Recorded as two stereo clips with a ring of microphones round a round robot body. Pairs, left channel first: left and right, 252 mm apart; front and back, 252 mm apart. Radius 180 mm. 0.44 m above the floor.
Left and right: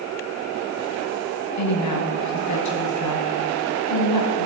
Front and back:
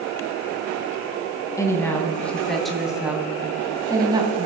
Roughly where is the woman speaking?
Left.